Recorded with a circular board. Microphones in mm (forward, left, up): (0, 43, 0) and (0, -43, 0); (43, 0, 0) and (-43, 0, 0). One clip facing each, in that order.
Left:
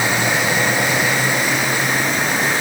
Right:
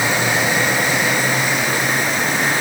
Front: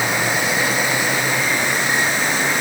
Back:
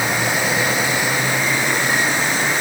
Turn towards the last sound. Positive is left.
No sound to turn to.